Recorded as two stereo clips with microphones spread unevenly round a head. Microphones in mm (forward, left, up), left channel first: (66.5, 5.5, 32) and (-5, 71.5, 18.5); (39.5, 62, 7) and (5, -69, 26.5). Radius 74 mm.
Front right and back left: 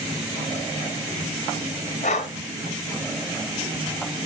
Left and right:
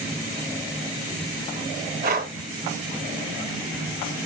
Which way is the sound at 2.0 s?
85° right.